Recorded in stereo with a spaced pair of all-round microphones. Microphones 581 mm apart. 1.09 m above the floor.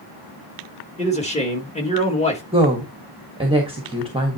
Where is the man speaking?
10° left (ahead or behind), 1.9 m.